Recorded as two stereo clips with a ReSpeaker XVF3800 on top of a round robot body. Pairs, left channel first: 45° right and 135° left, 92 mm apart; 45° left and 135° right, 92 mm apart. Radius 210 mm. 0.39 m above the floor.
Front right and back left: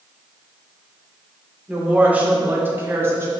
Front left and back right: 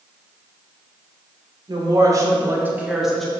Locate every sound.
1.7 s a woman speaking: 150° right, 1.9 m; by 3.3 s 125° left, 1.4 m